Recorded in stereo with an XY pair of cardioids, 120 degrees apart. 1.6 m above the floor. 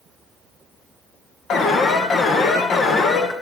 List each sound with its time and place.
1.5 s an alarm: 55° left, 2 m